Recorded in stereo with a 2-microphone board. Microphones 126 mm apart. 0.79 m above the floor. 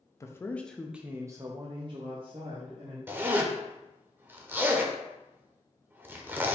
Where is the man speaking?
25° left (ahead or behind), 0.6 m; by 3.0 s 45° right (ahead or behind), 1.2 m.